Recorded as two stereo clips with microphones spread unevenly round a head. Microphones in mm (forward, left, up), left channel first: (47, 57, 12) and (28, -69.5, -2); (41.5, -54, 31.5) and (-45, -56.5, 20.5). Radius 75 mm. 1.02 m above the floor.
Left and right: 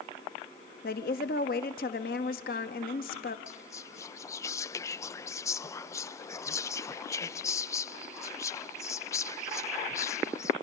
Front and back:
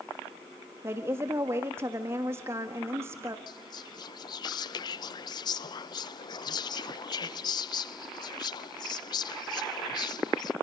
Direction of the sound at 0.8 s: 115° left.